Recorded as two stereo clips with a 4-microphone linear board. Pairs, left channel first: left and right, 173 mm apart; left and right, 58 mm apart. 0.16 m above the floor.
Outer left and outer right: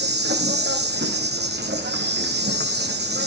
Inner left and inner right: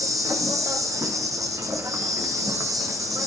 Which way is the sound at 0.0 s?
75° right (ahead or behind).